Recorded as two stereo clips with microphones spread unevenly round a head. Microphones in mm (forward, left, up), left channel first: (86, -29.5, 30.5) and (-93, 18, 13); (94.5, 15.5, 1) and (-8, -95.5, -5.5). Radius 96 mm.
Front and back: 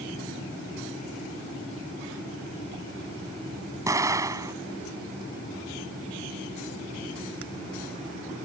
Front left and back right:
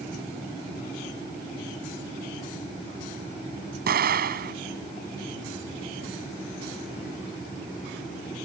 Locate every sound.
3.9 s an explosion: 120° right